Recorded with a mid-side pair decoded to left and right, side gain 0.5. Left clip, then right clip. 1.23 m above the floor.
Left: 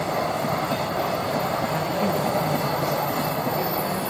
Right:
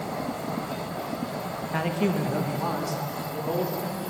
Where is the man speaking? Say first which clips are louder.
Left 4 dB; 25° right, 1.4 m.